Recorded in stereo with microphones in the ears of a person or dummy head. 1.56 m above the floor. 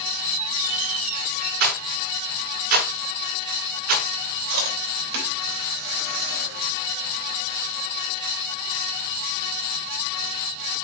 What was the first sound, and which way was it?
A squeak, 40° right (ahead or behind).